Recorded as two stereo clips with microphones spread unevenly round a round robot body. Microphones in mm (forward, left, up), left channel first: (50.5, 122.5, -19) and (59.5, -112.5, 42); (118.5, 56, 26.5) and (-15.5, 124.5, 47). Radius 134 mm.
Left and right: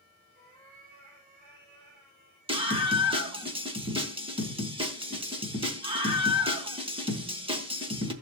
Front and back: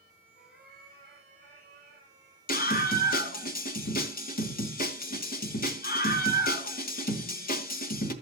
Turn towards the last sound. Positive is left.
turn(degrees=-15)